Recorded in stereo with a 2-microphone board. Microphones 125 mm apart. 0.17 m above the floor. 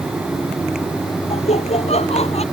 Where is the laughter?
55° left (ahead or behind).